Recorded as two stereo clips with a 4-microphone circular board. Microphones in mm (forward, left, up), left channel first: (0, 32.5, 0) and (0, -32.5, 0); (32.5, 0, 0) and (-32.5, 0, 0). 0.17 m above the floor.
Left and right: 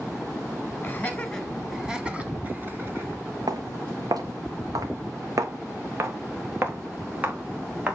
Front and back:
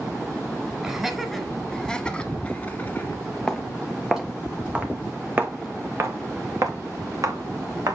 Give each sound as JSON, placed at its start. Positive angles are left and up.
{"t": 0.8, "sound": "laughter", "azimuth_deg": 115, "distance_m": 1.5}
{"t": 3.5, "sound": "footsteps", "azimuth_deg": -85, "distance_m": 1.9}